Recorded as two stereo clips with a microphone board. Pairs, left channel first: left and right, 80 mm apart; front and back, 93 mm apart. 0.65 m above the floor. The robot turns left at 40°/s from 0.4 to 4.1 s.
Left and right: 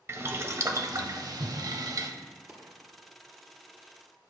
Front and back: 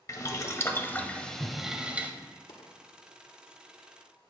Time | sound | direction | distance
0.1 | boiling | 45° right | 0.6 m
2.5 | a dropped coin | 25° right | 1.5 m